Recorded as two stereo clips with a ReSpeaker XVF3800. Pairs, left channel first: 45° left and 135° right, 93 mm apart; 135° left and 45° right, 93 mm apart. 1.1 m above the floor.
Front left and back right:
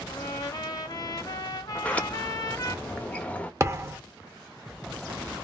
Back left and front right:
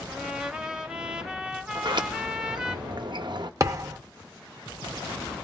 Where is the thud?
85° right, 0.6 m.